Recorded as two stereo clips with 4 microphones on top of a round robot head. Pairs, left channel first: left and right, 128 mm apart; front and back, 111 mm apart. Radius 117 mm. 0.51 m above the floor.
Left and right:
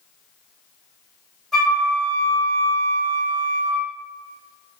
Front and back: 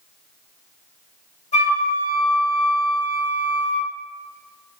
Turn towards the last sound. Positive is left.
turn(degrees=5)